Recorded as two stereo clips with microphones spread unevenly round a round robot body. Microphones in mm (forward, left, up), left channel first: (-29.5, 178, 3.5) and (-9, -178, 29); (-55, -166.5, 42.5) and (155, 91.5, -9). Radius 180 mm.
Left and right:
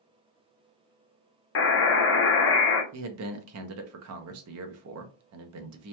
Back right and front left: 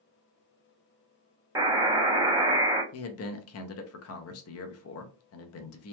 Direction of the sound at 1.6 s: 115° left.